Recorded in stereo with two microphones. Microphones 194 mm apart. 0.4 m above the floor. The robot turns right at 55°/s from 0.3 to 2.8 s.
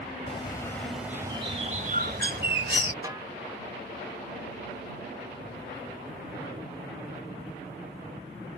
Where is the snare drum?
20° right (ahead or behind).